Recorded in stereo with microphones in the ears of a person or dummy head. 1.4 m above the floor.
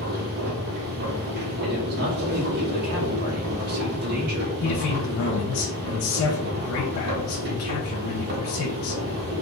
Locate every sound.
0.0 s a machine running: 60° right (ahead or behind), 1.4 m
1.6 s a man speaking: 65° right (ahead or behind), 1.3 m
4.6 s a man speaking: 70° left (ahead or behind), 0.7 m